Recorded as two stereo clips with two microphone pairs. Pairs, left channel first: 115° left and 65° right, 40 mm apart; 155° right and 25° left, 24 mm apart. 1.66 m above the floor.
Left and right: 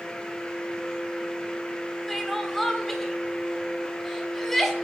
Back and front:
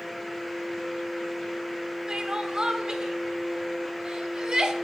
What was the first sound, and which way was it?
Crying, 35° left.